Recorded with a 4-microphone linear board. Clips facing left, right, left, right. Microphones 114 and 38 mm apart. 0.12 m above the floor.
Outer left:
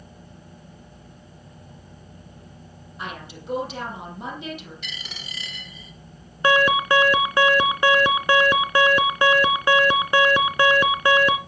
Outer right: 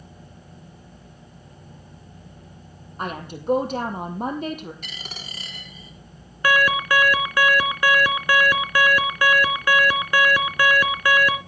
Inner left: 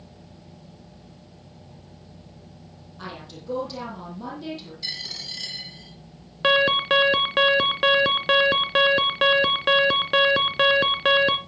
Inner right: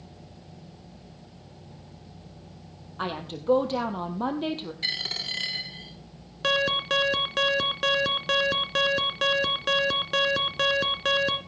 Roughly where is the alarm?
Left.